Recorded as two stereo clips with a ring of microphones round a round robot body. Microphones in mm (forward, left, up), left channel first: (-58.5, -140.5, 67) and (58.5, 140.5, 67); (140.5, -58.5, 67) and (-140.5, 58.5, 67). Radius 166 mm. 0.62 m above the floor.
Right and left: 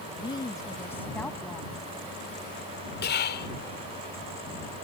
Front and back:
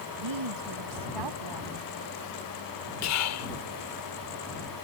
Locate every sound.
0.2 s a woman speaking: 175° left; by 1.9 s 155° left
3.0 s whispering: 55° right